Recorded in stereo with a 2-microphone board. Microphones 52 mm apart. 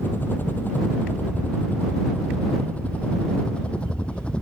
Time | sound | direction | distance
0.0 | a helicopter | 40° left (ahead or behind) | ?